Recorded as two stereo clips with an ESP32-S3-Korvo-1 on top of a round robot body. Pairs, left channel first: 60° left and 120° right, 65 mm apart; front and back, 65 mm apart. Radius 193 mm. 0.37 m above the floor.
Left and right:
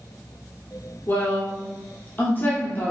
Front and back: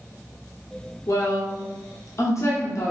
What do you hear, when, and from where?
1.1 s a woman speaking: 10° left, 1.3 m